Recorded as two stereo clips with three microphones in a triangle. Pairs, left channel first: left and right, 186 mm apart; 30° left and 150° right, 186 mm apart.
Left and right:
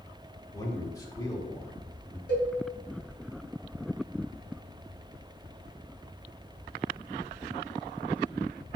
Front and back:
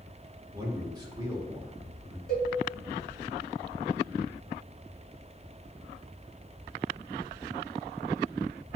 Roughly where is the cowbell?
Left.